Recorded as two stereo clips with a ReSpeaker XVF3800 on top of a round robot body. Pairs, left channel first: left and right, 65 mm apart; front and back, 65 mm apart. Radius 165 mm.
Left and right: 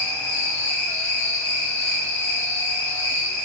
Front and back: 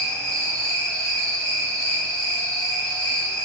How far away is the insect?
About 0.8 m.